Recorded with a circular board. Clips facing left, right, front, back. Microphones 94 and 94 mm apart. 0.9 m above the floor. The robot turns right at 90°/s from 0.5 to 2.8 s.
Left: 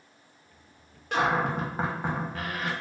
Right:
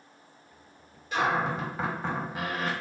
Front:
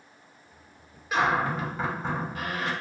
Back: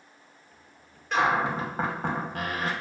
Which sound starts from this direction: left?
A cupboard door, at 1.1 s.